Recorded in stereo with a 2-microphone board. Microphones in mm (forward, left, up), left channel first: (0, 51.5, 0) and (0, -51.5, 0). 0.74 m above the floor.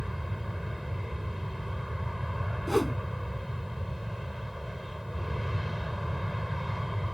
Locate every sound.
0.0 s an aircraft: centre (ahead or behind)
2.7 s a whoosh: centre (ahead or behind)